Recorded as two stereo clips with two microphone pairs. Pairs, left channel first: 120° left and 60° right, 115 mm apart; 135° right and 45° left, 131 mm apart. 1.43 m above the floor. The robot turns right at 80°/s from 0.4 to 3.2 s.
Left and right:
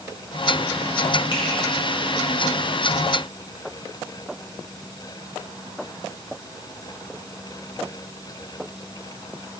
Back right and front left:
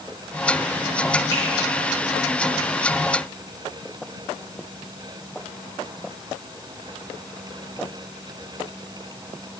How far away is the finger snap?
About 3.5 m.